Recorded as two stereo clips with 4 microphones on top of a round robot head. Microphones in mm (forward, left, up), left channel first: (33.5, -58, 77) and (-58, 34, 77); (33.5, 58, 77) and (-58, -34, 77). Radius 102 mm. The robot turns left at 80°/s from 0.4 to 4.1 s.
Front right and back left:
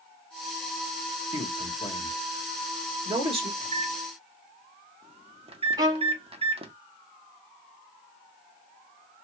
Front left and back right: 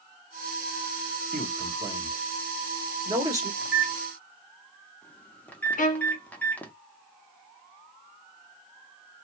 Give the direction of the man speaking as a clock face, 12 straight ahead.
1 o'clock.